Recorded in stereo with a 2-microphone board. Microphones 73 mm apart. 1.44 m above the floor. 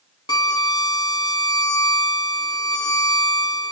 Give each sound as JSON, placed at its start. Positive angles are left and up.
{"t": 0.3, "sound": "a violin", "side_deg": 65, "distance_m": 0.7}